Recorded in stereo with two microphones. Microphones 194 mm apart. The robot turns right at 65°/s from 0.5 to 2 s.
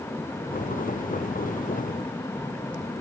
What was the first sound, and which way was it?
Only background noise.